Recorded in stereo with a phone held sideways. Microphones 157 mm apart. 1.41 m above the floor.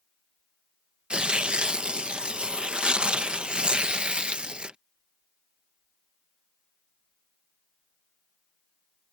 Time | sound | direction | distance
1.1 | tearing paper | 5° right (ahead or behind) | ?